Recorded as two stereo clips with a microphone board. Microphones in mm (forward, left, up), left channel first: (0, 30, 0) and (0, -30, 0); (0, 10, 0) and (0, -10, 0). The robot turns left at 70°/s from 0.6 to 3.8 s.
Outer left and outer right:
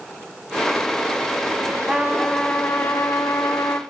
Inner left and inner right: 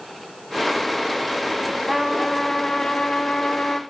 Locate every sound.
1.9 s a trumpet: 165° right, 0.8 m; by 3.8 s 60° left, 0.8 m